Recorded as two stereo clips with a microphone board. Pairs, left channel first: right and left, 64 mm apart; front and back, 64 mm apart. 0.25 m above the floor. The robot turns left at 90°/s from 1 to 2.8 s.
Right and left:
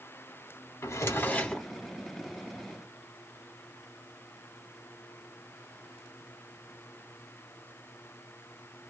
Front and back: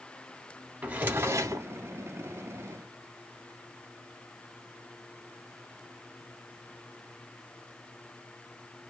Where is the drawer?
120° right, 0.6 m; by 1.7 s straight behind, 0.6 m.